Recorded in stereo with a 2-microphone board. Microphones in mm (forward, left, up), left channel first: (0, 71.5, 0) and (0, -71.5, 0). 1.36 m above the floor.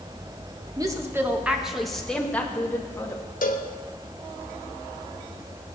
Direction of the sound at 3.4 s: 65° left (ahead or behind).